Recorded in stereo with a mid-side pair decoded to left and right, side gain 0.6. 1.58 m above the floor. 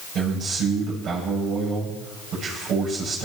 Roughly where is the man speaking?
Ahead right.